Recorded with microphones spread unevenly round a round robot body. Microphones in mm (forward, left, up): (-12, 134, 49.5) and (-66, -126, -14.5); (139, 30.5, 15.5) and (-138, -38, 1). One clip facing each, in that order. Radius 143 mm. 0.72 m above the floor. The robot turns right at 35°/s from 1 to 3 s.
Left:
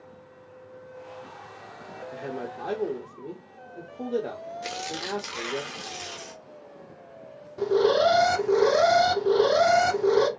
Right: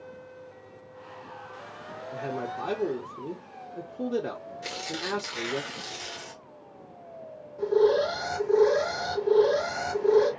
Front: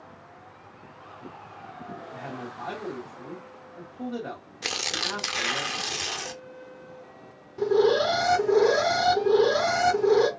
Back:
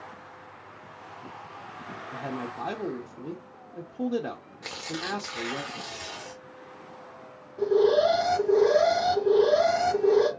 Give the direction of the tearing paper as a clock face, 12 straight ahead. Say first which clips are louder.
Right 1 dB, back 1 dB; 12 o'clock.